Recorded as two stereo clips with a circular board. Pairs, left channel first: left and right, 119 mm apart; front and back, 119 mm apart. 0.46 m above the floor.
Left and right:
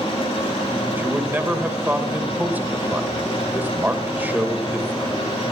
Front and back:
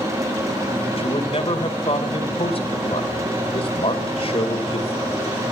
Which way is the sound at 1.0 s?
20° right.